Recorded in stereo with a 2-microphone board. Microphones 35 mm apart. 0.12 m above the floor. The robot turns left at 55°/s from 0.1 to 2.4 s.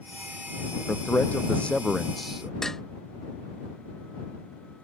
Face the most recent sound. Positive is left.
turn(degrees=10)  # may be behind; listen again after turning